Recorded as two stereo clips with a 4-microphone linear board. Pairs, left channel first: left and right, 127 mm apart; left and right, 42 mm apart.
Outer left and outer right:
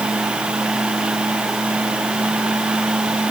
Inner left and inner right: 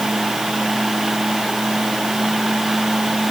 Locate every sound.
Only background noise.